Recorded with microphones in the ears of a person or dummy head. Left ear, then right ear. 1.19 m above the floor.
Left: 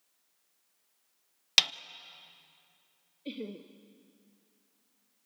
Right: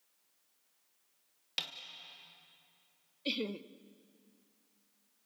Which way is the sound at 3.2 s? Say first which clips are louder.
Right 5 dB; 40° right (ahead or behind).